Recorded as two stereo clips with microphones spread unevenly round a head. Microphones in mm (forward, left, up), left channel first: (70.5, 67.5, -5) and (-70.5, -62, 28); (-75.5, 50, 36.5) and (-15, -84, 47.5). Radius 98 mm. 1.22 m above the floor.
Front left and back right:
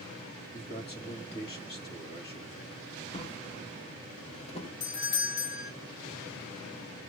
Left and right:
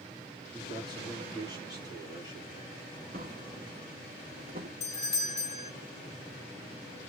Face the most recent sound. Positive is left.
turn(degrees=55)